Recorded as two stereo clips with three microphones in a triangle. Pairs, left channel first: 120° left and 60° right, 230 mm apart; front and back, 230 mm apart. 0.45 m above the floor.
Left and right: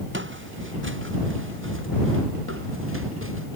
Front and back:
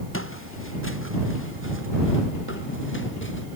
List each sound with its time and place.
0.1 s footsteps: 25° right; by 3.5 s 35° right